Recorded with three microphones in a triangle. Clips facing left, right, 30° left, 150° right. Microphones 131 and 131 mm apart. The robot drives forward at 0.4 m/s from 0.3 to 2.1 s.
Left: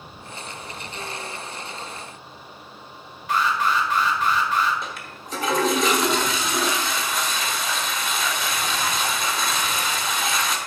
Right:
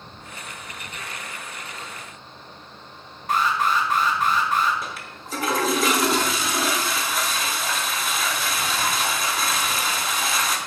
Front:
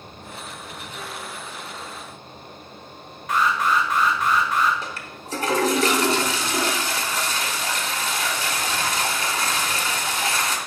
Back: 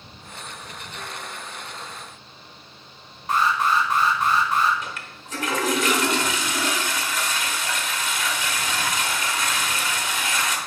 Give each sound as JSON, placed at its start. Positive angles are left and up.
{"t": 3.3, "sound": "an alarm", "azimuth_deg": -105, "distance_m": 1.6}
{"t": 4.8, "sound": "a toilet flushing", "azimuth_deg": -5, "distance_m": 1.1}